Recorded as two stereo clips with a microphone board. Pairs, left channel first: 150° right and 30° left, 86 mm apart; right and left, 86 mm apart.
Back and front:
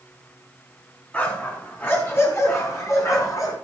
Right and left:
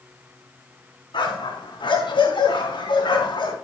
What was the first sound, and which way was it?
A dog barking, 80° right.